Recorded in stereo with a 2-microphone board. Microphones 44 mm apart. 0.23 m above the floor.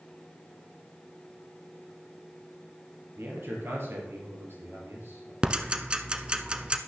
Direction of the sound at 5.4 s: 20° right (ahead or behind).